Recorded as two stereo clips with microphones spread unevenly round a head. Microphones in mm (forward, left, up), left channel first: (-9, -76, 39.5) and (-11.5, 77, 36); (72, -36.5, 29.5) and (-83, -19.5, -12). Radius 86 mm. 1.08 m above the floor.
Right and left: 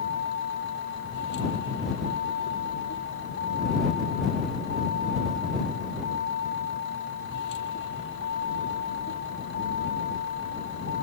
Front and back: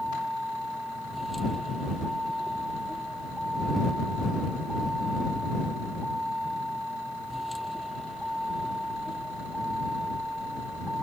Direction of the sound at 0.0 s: 95° right.